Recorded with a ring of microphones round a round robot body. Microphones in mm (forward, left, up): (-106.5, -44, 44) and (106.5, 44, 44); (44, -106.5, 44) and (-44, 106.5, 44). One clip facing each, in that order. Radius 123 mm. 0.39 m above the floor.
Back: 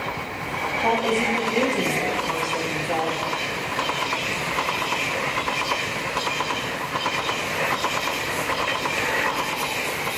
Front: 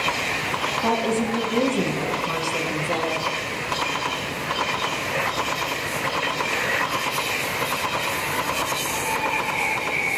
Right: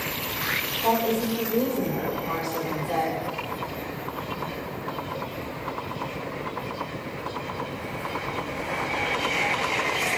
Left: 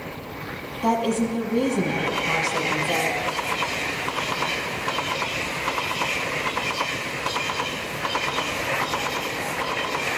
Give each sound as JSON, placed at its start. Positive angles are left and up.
{"t": 0.8, "sound": "a woman speaking", "azimuth_deg": 95, "distance_m": 4.0}